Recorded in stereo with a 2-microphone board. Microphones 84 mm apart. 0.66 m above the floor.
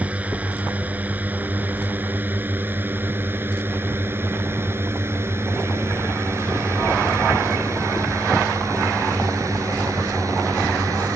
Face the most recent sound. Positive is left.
turn(degrees=-45)  # may be behind; listen again after turning